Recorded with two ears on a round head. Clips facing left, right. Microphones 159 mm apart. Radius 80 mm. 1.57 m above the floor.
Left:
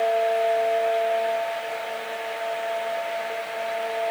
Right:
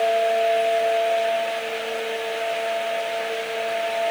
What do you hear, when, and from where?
Only background noise.